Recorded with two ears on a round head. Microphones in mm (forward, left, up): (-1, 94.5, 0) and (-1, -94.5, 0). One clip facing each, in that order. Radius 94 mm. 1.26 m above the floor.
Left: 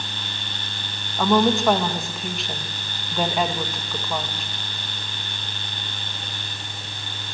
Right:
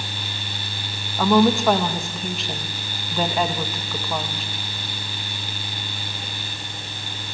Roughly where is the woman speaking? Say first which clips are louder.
Right 2 dB; centre.